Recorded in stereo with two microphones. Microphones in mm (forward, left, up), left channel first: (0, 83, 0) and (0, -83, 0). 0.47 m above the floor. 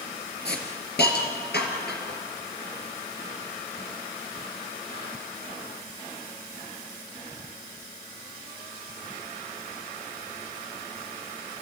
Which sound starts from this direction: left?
A hiss, at 0.5 s.